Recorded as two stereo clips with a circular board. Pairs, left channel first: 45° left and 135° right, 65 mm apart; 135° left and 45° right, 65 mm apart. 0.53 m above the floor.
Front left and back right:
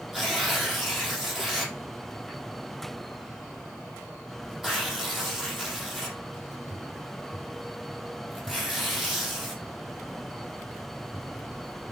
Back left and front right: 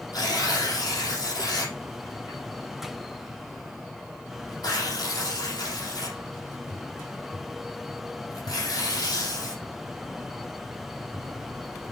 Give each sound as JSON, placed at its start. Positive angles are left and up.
{"t": 0.1, "sound": "tearing paper", "azimuth_deg": 140, "distance_m": 3.5}